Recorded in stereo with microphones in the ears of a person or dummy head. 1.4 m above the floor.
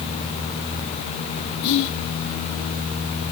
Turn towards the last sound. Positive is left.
turn(degrees=55)  # may be behind; listen again after turning